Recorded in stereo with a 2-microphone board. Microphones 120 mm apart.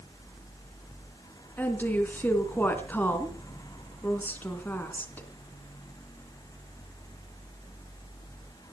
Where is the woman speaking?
15° left (ahead or behind), 3 m.